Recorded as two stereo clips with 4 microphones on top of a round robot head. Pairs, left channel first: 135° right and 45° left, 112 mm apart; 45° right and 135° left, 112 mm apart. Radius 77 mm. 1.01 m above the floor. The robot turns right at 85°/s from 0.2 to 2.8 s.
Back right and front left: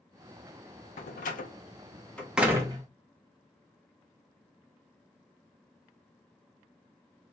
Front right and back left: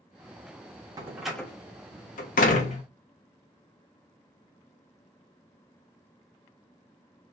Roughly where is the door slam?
Behind.